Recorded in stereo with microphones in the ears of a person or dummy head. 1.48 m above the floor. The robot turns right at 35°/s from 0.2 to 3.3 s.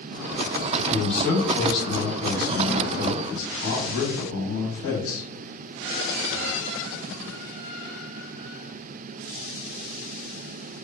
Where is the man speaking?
10° right, 1.1 m; by 5.2 s 80° left, 1.1 m.